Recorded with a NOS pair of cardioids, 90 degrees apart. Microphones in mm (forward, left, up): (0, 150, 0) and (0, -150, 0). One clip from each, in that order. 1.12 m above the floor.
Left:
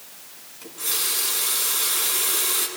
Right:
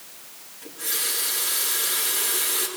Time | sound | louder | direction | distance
0.6 | a running tap | left 2 dB | 70° left | 8 m